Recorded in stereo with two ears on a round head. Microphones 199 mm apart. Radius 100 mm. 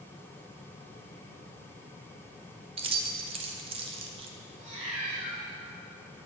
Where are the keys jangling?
25° right (ahead or behind), 0.6 m.